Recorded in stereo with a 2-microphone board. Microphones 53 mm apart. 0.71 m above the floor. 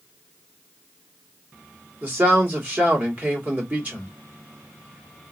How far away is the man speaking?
About 1.8 m.